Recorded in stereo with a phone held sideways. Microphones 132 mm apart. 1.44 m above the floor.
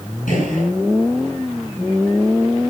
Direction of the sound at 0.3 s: 80° left.